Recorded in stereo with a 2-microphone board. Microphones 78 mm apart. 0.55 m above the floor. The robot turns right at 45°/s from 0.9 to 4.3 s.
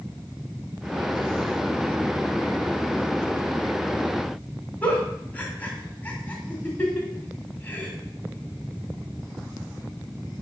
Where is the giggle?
20° left (ahead or behind), 2.5 m.